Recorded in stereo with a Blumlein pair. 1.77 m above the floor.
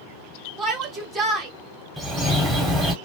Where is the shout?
15° right, 1.2 m.